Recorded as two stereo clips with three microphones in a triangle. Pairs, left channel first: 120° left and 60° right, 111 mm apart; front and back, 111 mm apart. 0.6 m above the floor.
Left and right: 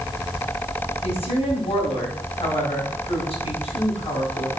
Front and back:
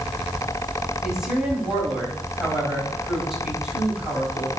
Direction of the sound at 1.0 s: 95° left.